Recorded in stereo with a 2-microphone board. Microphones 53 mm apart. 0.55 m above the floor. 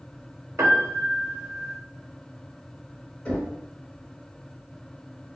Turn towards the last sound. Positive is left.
turn(degrees=25)  # may be behind; listen again after turning